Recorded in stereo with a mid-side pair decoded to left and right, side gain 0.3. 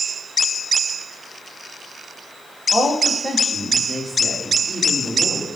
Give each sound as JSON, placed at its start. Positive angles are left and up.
{"t": 2.7, "sound": "a woman speaking", "azimuth_deg": 5, "distance_m": 3.0}